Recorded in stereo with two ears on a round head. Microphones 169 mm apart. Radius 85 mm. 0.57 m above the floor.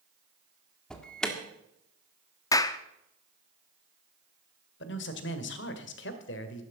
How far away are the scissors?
I don't hear scissors.